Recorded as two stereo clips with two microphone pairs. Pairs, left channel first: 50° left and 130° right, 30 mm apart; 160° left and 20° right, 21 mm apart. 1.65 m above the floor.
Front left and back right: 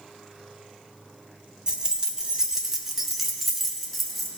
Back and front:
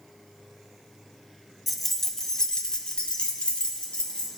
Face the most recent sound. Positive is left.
turn(degrees=140)